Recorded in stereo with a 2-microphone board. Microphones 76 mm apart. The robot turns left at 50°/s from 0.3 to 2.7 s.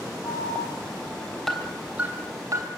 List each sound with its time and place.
0.2 s an alarm: 55° left (ahead or behind), 3 m; by 2.7 s 50° right (ahead or behind), 3 m